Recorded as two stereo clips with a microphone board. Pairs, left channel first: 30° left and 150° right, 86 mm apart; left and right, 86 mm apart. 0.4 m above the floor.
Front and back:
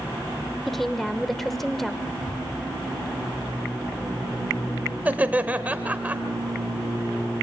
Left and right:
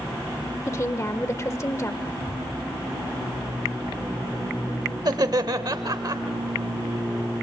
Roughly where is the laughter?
Right.